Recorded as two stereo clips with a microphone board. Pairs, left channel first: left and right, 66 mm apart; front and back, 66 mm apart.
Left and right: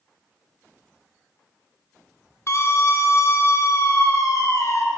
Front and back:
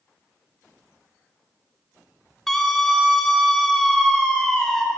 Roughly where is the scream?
Left.